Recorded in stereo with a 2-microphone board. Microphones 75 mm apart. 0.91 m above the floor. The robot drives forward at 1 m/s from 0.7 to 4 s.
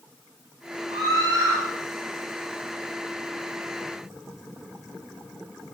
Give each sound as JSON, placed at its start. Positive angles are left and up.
{"t": 0.9, "sound": "a scream", "side_deg": -85, "distance_m": 9.5}